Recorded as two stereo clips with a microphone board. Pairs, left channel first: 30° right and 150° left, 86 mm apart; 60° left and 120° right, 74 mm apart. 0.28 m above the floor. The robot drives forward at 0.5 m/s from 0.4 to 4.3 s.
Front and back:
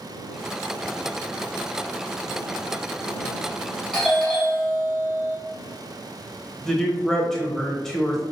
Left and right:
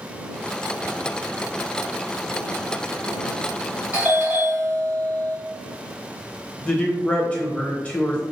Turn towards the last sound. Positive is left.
turn(degrees=40)